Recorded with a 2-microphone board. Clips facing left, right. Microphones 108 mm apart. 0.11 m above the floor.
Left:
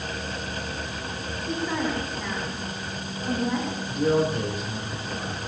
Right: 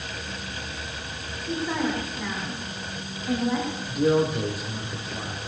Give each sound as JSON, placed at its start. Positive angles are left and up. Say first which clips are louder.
{"t": 1.4, "sound": "a woman speaking", "louder": "right 1 dB", "side_deg": 0, "distance_m": 5.0}
{"t": 3.9, "sound": "a man speaking", "louder": "right 1 dB", "side_deg": -5, "distance_m": 3.5}